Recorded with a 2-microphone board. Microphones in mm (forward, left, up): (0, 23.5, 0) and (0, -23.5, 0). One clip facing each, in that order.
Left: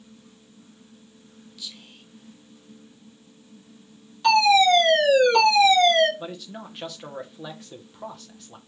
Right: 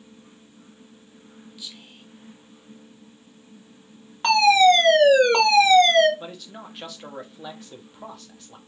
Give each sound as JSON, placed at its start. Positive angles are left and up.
{"t": 1.6, "sound": "whispering", "side_deg": -20, "distance_m": 1.4}
{"t": 4.2, "sound": "a fire alarm", "side_deg": -55, "distance_m": 2.0}
{"t": 6.2, "sound": "a man speaking", "side_deg": 0, "distance_m": 0.9}